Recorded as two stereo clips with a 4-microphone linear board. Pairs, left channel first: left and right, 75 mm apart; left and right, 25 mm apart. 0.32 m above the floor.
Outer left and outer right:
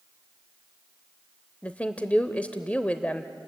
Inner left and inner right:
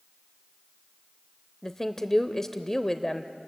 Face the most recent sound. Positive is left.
turn(degrees=20)  # may be behind; listen again after turning